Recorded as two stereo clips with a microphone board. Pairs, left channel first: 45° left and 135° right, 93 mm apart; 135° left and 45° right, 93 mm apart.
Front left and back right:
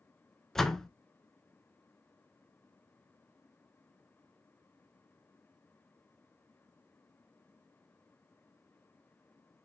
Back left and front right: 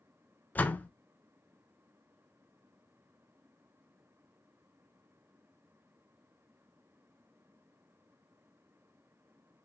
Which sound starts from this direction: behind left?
A door slam, at 0.6 s.